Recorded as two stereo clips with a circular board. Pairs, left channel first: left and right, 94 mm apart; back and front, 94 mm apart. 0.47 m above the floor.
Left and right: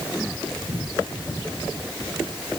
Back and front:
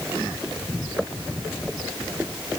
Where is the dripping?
I don't hear dripping.